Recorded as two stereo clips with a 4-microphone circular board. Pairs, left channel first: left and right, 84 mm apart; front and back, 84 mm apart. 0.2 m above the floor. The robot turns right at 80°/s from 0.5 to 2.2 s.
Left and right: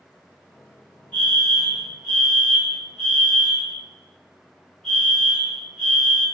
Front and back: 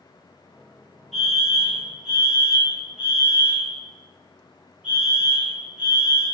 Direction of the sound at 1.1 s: 75° left.